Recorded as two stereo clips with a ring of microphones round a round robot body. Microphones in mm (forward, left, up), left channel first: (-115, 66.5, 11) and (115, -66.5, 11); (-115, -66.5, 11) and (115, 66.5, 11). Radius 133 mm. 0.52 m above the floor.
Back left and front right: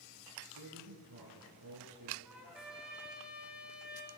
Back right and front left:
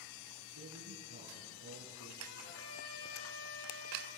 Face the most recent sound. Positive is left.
turn(degrees=-115)